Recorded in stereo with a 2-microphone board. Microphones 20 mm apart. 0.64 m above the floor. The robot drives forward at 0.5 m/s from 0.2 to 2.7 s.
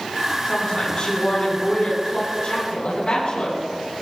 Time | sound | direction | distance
0.5 | a woman speaking | 45° left (ahead or behind) | 7.5 m